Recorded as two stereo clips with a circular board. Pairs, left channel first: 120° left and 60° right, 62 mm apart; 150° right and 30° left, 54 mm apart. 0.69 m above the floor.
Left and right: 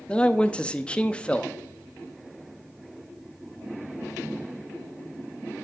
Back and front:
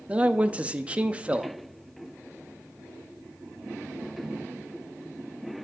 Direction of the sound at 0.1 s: 70° left.